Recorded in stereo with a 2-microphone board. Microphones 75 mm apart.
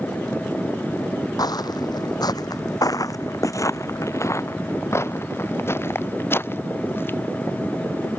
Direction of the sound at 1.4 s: 65° left (ahead or behind).